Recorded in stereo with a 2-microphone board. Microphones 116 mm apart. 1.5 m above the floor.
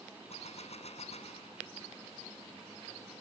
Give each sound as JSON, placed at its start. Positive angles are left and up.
{"t": 0.3, "sound": "a gunshot", "side_deg": 65}